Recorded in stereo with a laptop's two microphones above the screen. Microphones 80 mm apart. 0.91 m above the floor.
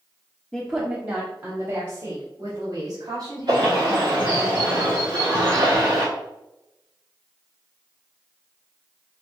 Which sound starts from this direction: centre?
A woman speaking, at 0.5 s.